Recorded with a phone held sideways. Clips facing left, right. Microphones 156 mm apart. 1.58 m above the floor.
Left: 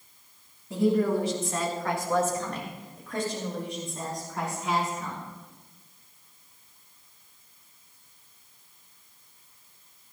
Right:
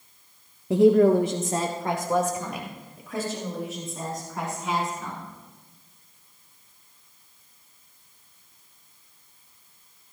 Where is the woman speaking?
70° right (ahead or behind), 0.8 m; by 5.2 s centre (ahead or behind), 5.5 m.